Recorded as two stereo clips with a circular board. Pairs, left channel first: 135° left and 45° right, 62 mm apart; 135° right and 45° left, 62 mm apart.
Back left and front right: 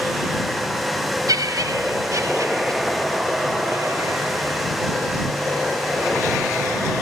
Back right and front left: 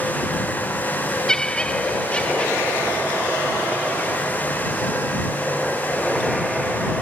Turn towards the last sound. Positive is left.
turn(degrees=-70)